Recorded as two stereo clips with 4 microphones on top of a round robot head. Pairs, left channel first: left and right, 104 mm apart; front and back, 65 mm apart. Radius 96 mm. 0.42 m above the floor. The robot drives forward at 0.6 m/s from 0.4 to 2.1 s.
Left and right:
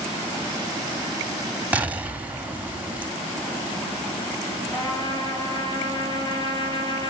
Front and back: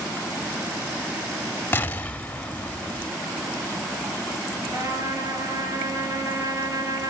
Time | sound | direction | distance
1.7 | an explosion | 25° right | 1.0 m
4.7 | a trumpet | 140° left | 3.5 m